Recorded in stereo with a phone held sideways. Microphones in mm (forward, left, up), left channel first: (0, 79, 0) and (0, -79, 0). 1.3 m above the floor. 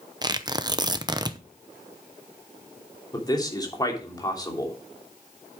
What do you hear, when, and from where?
0.2 s tearing paper: 25° right (ahead or behind), 0.8 m
3.1 s a man speaking: 25° left (ahead or behind), 3 m